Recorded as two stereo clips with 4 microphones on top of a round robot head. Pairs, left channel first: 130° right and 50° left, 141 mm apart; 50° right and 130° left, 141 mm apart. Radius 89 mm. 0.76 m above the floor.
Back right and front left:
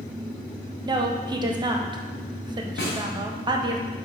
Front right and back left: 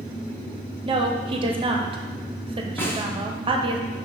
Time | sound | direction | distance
0.8 | a woman speaking | 100° left | 0.7 m
2.8 | a snare drum | 125° right | 1.2 m